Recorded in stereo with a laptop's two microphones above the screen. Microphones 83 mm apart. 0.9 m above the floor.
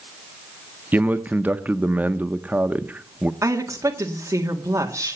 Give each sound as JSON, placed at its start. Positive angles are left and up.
{"t": 0.9, "sound": "a man speaking", "side_deg": -20, "distance_m": 0.9}
{"t": 3.4, "sound": "a woman speaking", "side_deg": -35, "distance_m": 1.9}